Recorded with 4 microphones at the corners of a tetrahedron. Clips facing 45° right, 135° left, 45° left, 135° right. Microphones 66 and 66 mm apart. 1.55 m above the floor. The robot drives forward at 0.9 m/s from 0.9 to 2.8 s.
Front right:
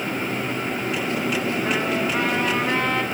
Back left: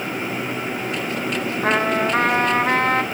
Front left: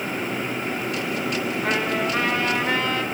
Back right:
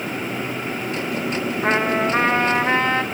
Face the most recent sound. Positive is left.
turn(degrees=175)